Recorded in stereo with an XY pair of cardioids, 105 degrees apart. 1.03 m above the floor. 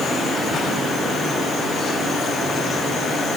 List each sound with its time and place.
Only background noise.